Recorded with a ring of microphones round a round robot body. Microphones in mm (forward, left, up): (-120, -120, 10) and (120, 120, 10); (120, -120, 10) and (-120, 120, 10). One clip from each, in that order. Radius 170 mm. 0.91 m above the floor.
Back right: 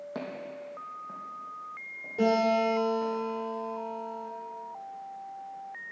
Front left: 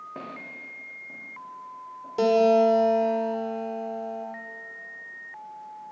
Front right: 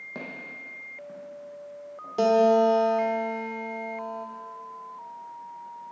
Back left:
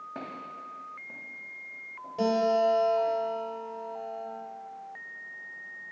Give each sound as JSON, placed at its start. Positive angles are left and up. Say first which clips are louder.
{"t": 0.1, "sound": "footsteps", "louder": "back right 1 dB, front right 2 dB", "azimuth_deg": -115, "distance_m": 2.5}
{"t": 2.2, "sound": "a guitar", "louder": "front left 6 dB, front right 5 dB", "azimuth_deg": 5, "distance_m": 1.2}